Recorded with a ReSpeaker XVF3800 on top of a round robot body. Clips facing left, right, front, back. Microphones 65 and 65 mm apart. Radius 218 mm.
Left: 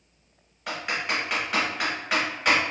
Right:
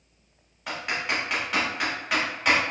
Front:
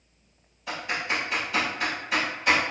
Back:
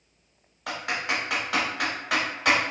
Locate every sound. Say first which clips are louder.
0.7 s typing on a keyboard: even, back 1 dB; straight behind, 1.1 m